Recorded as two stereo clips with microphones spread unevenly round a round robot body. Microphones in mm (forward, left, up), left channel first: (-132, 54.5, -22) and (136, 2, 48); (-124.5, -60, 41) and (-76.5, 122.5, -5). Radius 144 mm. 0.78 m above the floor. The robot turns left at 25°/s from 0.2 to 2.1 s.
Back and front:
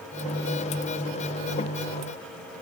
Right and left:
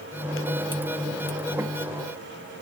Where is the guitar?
I don't hear a guitar.